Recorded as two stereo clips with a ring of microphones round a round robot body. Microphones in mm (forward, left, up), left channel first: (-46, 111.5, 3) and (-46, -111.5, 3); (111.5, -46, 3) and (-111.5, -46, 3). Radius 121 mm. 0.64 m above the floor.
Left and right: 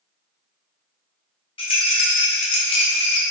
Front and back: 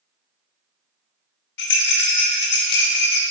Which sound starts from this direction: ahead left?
A rattle, at 1.6 s.